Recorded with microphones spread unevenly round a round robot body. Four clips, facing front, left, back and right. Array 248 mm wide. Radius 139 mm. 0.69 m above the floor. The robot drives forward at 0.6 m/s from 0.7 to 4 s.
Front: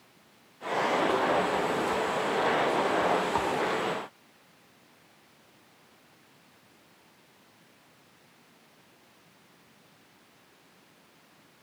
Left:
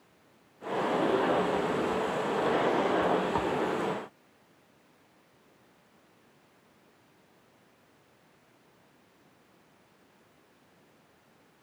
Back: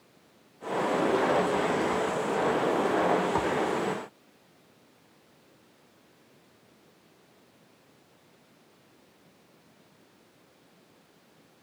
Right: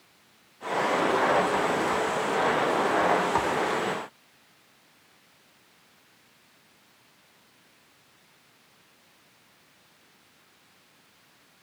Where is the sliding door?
No sliding door in this recording.